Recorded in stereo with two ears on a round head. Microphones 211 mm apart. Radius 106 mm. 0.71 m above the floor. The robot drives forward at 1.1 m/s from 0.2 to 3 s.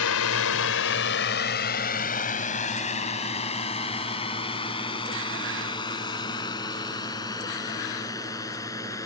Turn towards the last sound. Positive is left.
turn(degrees=15)  # may be behind; listen again after turning